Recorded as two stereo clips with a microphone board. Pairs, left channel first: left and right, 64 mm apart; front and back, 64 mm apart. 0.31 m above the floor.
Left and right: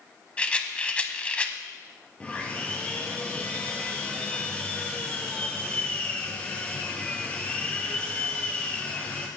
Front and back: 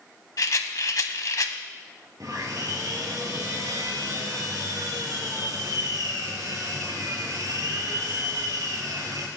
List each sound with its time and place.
0.4 s a rattle: 20° left, 0.8 m
2.2 s sawing: 160° left, 2 m